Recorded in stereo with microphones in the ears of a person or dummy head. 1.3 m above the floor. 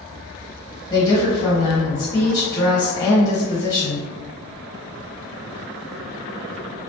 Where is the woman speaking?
20° left (ahead or behind), 1.3 m.